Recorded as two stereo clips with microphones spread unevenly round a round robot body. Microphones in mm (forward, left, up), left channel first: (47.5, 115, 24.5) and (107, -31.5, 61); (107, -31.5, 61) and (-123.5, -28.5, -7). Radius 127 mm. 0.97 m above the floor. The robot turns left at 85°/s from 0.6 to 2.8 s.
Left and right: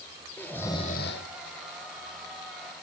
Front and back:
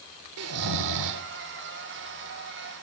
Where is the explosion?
I don't hear an explosion.